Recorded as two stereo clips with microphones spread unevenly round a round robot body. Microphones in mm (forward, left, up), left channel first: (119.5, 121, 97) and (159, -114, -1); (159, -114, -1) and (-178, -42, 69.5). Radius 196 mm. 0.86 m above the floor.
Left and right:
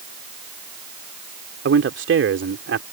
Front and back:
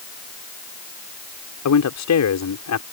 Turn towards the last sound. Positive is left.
turn(degrees=-50)